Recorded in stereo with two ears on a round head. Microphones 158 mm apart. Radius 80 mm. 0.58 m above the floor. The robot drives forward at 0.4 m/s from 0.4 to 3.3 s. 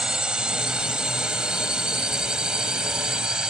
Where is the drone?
5° right (ahead or behind).